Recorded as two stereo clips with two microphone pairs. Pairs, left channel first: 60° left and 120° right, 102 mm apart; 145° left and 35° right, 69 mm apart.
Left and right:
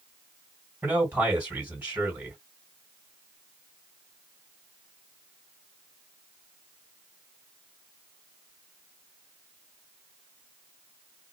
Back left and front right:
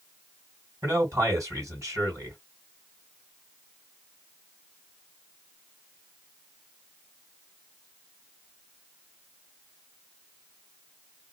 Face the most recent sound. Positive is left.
turn(degrees=-60)